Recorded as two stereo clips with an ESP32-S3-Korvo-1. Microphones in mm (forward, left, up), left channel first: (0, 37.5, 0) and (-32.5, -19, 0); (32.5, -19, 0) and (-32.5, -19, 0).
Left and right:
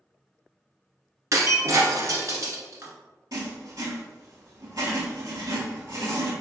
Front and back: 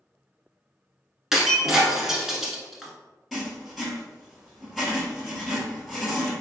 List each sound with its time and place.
1.3 s breaking glass: 100° right, 0.7 m
3.3 s writing: 90° right, 1.3 m